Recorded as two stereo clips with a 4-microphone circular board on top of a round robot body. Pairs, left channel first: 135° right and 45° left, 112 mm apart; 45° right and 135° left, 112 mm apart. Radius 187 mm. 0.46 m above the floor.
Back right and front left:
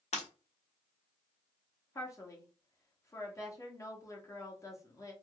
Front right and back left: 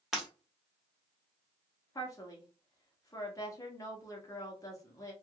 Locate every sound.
0.1 s breaking glass: 140° right, 1.3 m
1.9 s a woman speaking: 85° right, 1.1 m